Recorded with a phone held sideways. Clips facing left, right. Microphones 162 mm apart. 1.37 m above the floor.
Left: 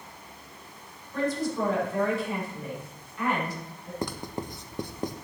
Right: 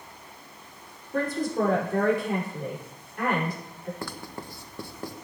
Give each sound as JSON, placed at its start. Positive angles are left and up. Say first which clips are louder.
{"t": 1.1, "sound": "a man speaking", "louder": "right 1 dB", "side_deg": -55, "distance_m": 5.5}
{"t": 4.0, "sound": "writing", "louder": "left 4 dB", "side_deg": 20, "distance_m": 0.8}